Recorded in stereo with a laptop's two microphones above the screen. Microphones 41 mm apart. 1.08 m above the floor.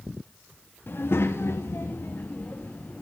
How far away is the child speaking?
About 1.2 m.